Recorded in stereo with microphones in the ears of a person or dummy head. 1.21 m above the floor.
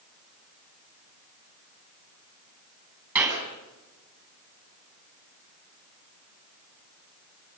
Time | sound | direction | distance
3.1 | a clap | 15° right (ahead or behind) | 9 m